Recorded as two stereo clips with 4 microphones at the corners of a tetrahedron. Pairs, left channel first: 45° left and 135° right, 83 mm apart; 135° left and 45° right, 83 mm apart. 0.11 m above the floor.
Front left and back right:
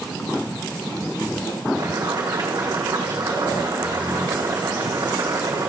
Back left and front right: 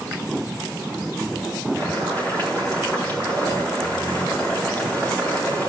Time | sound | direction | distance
1.8 | boiling | 160° right | 4.5 m